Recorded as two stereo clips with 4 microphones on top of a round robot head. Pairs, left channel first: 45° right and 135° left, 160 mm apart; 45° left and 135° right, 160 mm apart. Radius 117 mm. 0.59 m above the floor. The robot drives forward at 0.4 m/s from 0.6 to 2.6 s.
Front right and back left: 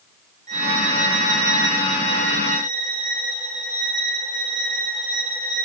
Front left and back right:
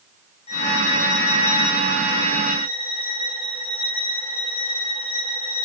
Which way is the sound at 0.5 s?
95° left.